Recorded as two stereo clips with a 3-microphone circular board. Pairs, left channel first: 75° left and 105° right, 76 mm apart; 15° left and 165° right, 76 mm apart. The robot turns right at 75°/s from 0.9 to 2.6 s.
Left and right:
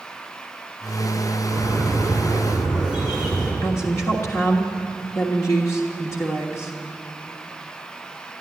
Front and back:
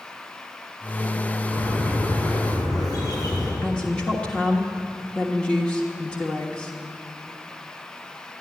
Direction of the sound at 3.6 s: 85° left.